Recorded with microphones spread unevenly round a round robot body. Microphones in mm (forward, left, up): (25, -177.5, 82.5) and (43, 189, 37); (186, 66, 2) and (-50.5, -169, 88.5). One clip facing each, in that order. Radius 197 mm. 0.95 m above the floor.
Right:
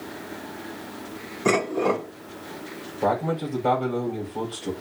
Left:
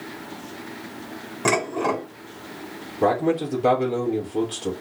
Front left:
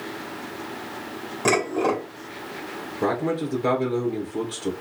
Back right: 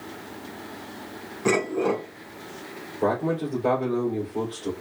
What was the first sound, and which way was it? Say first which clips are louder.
Dishes clattering: right 2 dB, even; 85° left.